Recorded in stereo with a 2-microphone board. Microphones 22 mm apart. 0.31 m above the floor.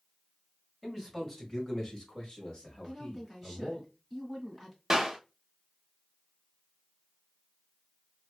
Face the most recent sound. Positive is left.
turn(degrees=-20)  # may be behind; listen again after turning